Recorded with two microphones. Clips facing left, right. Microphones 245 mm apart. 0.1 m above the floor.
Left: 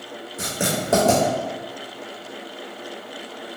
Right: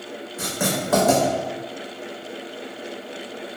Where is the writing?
30° left (ahead or behind), 1.4 m.